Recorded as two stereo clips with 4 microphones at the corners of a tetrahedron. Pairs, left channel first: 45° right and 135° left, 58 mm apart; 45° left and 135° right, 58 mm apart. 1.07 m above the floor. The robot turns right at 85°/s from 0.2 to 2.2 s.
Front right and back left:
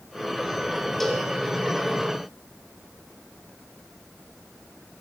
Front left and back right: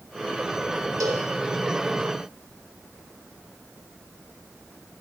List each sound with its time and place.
1.0 s a cowbell: 130° right, 0.8 m; by 1.3 s 105° right, 0.8 m